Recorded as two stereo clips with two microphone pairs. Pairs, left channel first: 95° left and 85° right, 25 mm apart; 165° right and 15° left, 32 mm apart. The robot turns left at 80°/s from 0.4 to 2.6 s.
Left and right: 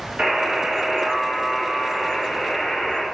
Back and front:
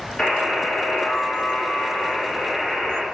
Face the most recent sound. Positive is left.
turn(degrees=80)